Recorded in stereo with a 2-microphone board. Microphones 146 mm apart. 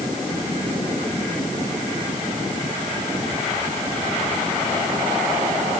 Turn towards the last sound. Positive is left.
No sound to turn to.